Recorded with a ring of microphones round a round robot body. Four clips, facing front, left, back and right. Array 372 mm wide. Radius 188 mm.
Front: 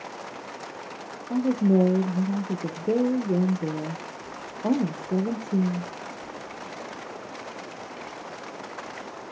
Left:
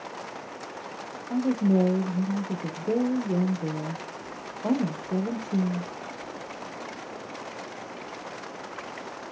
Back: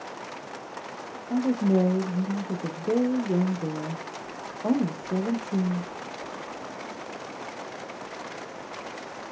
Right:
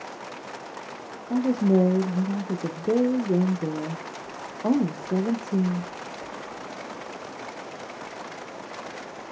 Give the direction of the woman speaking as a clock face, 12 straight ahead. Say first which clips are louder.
Right 2 dB, front 2 dB; 2 o'clock.